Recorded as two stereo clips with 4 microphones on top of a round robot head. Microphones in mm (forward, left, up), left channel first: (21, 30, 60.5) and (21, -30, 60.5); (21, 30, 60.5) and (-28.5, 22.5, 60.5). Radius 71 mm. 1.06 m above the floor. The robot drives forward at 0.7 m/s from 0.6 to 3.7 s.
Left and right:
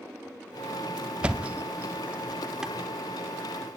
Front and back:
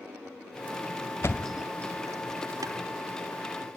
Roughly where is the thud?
Ahead right.